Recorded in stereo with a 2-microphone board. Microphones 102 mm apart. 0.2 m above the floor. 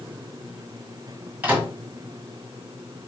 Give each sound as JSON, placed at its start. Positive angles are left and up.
{"t": 1.4, "sound": "a microwave", "side_deg": -20, "distance_m": 1.5}